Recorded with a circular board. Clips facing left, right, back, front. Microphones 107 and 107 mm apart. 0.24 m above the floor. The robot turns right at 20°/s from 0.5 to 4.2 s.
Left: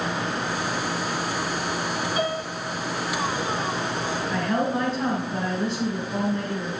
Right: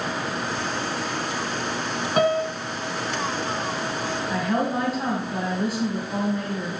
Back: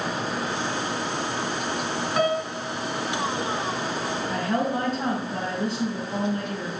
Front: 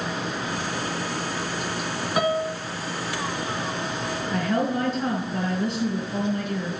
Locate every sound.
2.2 s a piano: 80° right, 1.2 m; by 2.5 s 70° right, 1.2 m
4.3 s a woman speaking: 165° right, 2 m